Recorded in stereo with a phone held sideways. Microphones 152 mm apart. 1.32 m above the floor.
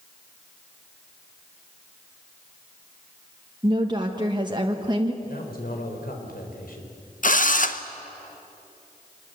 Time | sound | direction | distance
3.6 | a woman speaking | 30° right (ahead or behind) | 1.3 m
5.2 | a man speaking | 75° left (ahead or behind) | 4 m
7.2 | a drill | 60° left (ahead or behind) | 0.9 m